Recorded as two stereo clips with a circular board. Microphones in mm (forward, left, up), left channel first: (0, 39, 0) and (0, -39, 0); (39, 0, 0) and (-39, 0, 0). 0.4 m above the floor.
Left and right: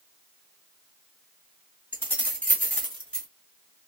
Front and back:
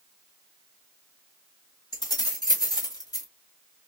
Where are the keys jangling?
25° left, 2 m; by 3.3 s 10° left, 1.3 m.